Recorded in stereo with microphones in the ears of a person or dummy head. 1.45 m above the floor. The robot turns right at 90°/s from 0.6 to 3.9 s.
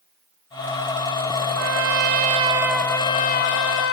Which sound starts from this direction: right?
A trumpet, at 1.6 s.